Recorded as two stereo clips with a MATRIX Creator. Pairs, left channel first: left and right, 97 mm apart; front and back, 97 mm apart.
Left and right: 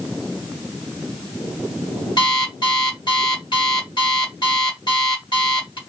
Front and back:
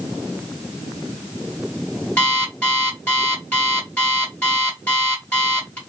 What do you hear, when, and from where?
2.2 s an alarm clock: 65° left, 1.4 m